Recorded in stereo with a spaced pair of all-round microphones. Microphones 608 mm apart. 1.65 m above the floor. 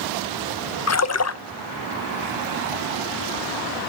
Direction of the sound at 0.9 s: 25° left (ahead or behind).